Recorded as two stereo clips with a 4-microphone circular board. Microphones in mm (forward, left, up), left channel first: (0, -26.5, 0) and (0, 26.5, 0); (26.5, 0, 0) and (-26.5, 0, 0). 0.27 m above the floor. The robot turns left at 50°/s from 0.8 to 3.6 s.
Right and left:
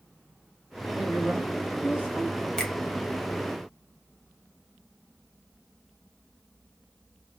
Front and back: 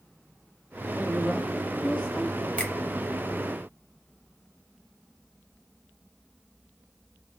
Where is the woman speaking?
100° left, 1.5 m; by 2.5 s 25° left, 1.5 m.